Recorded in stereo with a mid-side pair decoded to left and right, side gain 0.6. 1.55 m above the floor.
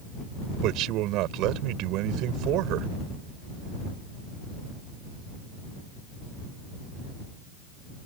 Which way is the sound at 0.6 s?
70° right.